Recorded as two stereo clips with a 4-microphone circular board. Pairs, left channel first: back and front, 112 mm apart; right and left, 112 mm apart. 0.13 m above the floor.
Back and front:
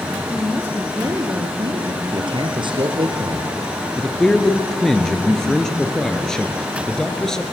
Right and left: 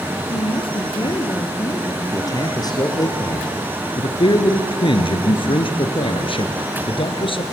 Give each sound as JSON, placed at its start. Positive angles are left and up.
{"t": 0.3, "sound": "a woman speaking", "azimuth_deg": -80, "distance_m": 2.5}
{"t": 2.1, "sound": "a man speaking", "azimuth_deg": -40, "distance_m": 3.0}
{"t": 4.0, "sound": "a man speaking", "azimuth_deg": -95, "distance_m": 2.0}